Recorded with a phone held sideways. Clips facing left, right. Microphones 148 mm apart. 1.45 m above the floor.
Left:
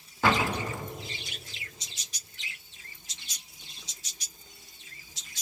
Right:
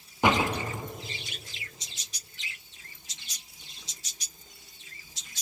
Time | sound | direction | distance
0.2 | a door slam | 20° right (ahead or behind) | 2.5 m